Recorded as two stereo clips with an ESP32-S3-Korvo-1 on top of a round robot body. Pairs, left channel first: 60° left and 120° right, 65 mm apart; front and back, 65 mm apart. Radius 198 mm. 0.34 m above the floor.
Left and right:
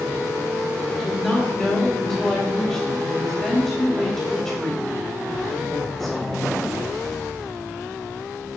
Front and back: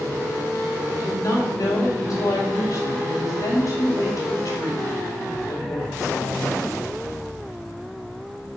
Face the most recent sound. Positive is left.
turn(degrees=-25)